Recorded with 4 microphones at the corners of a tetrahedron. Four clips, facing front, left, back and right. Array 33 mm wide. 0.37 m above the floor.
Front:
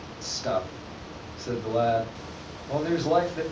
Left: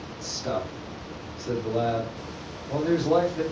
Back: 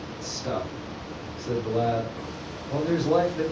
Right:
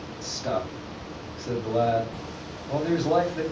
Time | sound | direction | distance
0.2 | a man speaking | 20° right | 2 m